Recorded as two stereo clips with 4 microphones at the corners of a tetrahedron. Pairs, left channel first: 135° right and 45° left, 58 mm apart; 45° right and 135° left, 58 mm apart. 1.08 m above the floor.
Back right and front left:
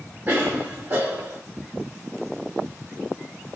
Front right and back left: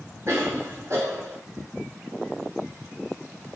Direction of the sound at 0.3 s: 90° left.